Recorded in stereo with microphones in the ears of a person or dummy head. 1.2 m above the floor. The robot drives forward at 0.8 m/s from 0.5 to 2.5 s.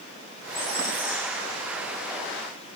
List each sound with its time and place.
0.4 s a squeak: 80° left, 7 m; by 2.0 s 70° left (ahead or behind), 7.5 m